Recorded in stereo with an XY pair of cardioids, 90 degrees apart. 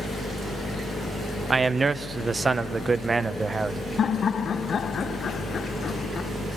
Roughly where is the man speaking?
Ahead right.